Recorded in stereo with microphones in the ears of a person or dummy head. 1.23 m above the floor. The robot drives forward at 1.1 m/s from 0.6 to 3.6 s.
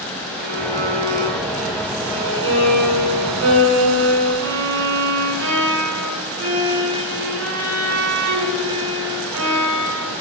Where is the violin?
40° right (ahead or behind), 5 m; by 10.2 s 80° right, 3.5 m.